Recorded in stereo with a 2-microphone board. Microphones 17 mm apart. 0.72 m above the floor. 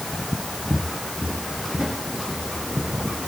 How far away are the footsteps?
About 1.9 m.